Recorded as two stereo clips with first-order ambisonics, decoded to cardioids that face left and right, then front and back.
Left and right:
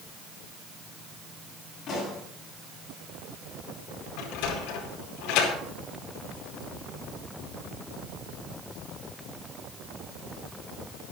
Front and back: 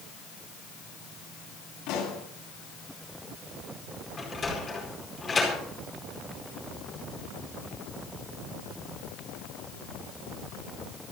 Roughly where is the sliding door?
Left.